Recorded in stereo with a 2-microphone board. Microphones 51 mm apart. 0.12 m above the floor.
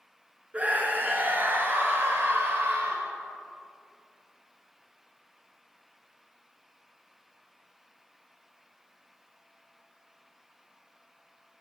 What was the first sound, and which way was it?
A scream, 30° right (ahead or behind).